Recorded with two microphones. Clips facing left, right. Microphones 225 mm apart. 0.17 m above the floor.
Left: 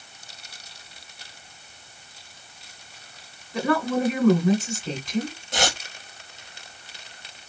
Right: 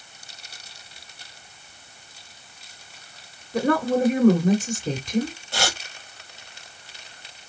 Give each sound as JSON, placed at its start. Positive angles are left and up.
{"t": 3.5, "sound": "a woman speaking", "side_deg": -35, "distance_m": 1.6}
{"t": 5.5, "sound": "tearing paper", "side_deg": 20, "distance_m": 1.3}